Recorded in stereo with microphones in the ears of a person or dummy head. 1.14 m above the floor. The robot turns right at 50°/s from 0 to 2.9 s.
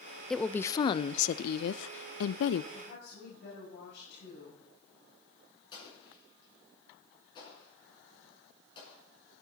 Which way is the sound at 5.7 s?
30° left (ahead or behind).